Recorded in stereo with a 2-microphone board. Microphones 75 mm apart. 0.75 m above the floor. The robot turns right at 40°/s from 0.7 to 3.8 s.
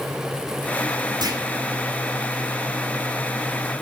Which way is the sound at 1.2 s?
65° right (ahead or behind).